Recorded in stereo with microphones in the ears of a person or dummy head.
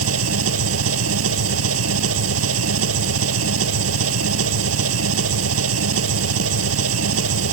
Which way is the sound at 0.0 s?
80° right.